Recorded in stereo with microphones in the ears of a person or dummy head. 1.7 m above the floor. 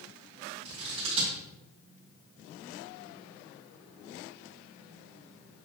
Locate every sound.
0.7 s scissors: 30° right (ahead or behind), 2 m